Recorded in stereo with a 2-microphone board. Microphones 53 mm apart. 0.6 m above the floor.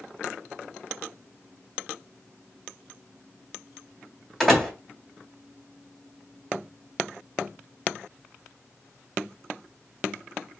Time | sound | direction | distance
4.4 | a door slam | centre (ahead or behind) | 1.8 m